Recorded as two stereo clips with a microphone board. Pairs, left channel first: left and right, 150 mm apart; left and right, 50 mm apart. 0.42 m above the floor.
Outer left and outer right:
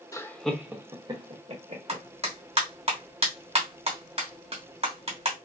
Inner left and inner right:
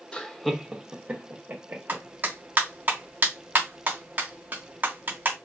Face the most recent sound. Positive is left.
turn(degrees=-40)  # may be behind; listen again after turning